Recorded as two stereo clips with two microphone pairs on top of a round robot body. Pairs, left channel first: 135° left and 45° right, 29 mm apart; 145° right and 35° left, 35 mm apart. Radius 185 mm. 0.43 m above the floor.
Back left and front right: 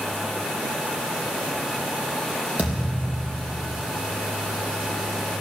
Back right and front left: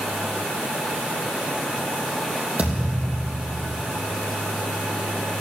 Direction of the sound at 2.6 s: 10° right.